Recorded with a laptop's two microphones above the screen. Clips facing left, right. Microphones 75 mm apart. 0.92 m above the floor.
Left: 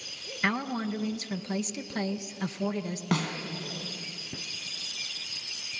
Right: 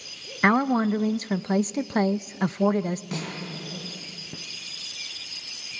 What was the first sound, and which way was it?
A woman speaking, 40° right (ahead or behind).